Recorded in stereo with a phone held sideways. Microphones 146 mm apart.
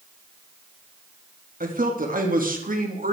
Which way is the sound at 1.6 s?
75° right (ahead or behind).